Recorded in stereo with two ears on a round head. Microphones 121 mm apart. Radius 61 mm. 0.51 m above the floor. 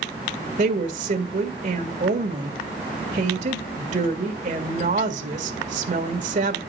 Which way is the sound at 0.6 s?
55° right (ahead or behind).